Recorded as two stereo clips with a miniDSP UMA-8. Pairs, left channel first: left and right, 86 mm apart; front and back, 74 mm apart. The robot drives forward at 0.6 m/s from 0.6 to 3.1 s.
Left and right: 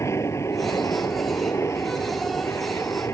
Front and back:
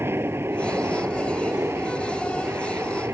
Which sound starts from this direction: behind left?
An aircraft, at 0.0 s.